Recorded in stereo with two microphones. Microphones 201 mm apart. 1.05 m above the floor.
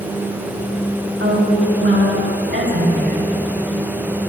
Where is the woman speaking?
80° right, 6 m; by 3.3 s 65° right (ahead or behind), 4.5 m.